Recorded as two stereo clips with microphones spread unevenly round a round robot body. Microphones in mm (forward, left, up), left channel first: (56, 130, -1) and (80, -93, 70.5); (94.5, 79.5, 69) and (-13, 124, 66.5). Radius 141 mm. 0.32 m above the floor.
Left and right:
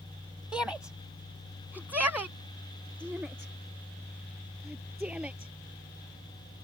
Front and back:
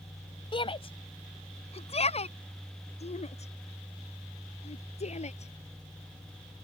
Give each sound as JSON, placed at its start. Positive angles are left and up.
{"t": 0.5, "sound": "a shout", "azimuth_deg": 15}